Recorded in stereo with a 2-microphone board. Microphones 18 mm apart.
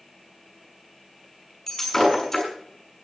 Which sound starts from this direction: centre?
Breaking glass, at 1.7 s.